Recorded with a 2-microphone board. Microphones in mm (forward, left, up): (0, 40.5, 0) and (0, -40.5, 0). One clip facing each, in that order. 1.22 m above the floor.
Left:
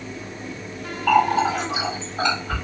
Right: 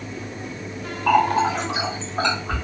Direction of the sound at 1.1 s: 80° right.